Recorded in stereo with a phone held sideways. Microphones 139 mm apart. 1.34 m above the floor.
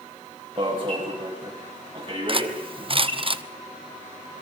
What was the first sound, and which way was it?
An alarm, 40° right (ahead or behind).